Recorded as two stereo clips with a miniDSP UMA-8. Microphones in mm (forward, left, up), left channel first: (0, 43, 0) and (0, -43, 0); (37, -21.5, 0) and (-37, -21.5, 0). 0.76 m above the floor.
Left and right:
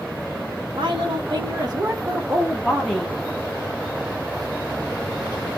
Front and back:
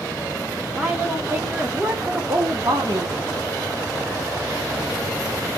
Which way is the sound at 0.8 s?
90° right.